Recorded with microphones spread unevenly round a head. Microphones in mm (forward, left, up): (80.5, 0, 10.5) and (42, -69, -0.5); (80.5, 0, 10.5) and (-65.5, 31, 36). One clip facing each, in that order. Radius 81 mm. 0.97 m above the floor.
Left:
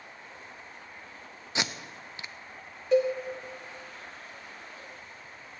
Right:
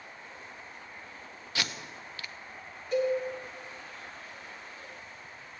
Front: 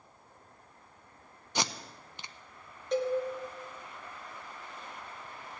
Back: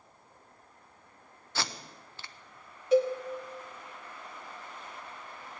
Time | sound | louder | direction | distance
1.6 | tape being pulled | left 3 dB, front 3 dB | straight ahead | 0.6 m
2.9 | a cowbell | left 4 dB, back 6 dB | 80° left | 1.9 m